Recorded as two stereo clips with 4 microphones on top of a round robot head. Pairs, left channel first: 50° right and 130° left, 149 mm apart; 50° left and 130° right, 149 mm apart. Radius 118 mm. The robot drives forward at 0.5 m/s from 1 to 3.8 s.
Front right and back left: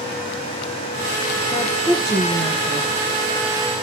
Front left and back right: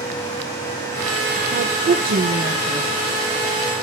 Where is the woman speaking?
140° right, 2 m; by 2.9 s 150° right, 3 m.